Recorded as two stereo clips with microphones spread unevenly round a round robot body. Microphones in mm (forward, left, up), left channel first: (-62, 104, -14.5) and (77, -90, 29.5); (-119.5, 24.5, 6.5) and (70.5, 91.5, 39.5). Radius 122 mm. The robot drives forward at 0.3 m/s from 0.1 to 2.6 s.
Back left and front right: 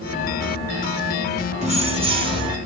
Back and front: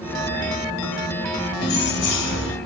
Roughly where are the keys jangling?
Behind right.